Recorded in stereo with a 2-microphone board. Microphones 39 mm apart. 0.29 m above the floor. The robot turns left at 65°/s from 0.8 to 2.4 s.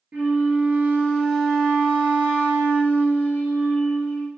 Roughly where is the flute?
Behind right.